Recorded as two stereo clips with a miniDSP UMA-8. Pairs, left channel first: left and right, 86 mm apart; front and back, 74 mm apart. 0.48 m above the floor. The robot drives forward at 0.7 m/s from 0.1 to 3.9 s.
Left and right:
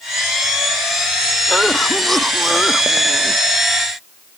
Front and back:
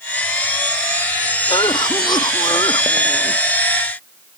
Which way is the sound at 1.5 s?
Straight ahead.